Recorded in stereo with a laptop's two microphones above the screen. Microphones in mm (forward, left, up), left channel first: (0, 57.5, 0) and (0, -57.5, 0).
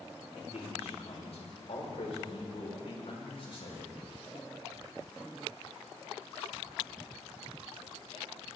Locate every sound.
0.4 s a man speaking: 70° left (ahead or behind), 4.5 m; by 3.9 s 50° left (ahead or behind), 5.5 m